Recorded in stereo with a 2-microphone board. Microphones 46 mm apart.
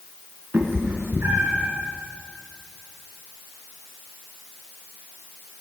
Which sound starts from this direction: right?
A cat meowing, at 0.5 s.